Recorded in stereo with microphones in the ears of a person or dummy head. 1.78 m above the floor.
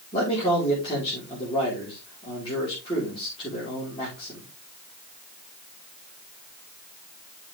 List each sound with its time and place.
0.1 s a man speaking: 35° left (ahead or behind), 5 m